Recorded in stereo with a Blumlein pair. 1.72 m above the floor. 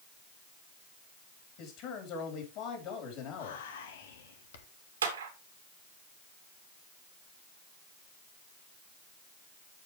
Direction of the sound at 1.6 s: 40° left.